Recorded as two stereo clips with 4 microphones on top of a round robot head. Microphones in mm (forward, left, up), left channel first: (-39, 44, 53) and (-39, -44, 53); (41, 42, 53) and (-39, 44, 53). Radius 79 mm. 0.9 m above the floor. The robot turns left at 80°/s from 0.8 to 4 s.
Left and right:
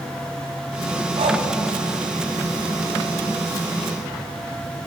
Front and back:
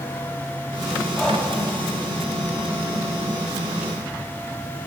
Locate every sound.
1.2 s breathing: 80° right, 1.6 m; by 1.4 s 105° right, 1.6 m